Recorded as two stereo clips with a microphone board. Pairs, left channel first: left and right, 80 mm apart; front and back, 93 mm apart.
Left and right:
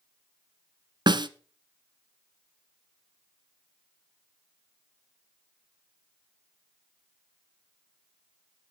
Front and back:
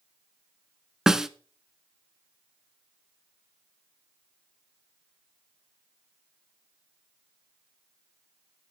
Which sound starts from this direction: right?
A snare drum, at 1.1 s.